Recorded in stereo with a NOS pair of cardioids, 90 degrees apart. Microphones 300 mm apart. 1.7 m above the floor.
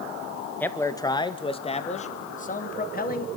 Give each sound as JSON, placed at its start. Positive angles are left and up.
{"t": 0.6, "sound": "a man speaking", "azimuth_deg": 5, "distance_m": 1.7}